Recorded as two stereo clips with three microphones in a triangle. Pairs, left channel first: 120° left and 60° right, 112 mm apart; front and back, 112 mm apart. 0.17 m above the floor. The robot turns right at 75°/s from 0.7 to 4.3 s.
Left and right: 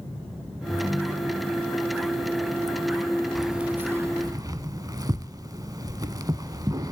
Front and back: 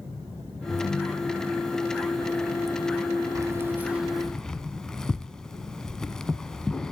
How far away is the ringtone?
About 1.2 m.